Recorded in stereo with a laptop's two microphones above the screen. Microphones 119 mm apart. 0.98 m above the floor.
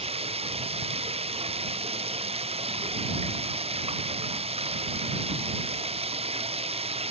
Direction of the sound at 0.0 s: 60° right (ahead or behind).